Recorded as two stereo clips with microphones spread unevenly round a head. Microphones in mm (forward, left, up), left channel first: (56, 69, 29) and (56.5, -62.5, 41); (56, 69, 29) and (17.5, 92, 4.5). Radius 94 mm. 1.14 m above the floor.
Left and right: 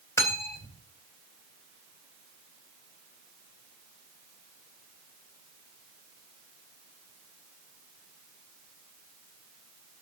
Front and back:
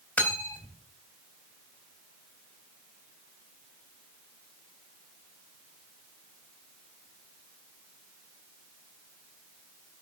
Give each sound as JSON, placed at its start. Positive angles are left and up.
{"t": 0.2, "sound": "cutlery clinking", "azimuth_deg": 20, "distance_m": 4.0}